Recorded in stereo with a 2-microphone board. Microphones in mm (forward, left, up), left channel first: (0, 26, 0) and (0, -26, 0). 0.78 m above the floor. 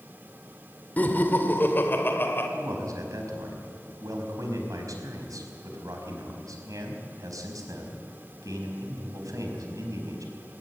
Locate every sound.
1.0 s laughter: 30° left (ahead or behind), 2.5 m; by 2.5 s 40° left (ahead or behind), 3 m
2.5 s a man speaking: 85° right, 4.5 m